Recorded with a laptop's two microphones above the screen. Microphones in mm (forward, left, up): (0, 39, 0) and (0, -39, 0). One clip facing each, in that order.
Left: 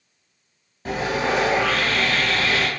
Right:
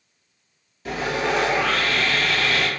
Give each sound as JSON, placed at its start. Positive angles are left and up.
{"t": 0.8, "sound": "sawing", "side_deg": 35, "distance_m": 1.4}